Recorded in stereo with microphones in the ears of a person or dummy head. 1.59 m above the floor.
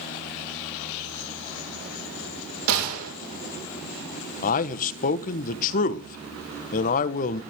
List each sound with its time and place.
2.7 s a gunshot: 70° right (ahead or behind), 4.5 m
4.4 s a man speaking: 50° left (ahead or behind), 1.1 m